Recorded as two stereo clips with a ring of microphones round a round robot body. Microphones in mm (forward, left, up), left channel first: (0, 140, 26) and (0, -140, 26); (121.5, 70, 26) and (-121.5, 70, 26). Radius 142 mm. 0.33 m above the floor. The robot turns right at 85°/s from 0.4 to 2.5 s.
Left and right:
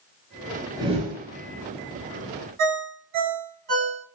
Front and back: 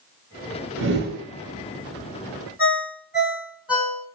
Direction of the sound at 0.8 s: 165° right.